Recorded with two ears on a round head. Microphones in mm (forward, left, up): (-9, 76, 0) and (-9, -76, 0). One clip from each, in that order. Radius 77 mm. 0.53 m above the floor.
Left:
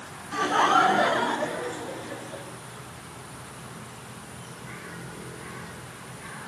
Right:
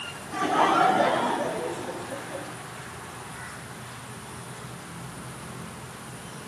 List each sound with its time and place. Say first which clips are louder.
0.3 s laughter: left 1 dB; 70° left (ahead or behind), 6 m; by 2.5 s 55° left (ahead or behind), 7.5 m